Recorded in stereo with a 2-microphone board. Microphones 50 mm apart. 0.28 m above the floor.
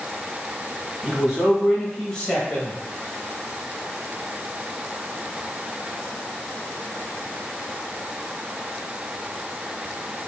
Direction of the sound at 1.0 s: 10° right (ahead or behind).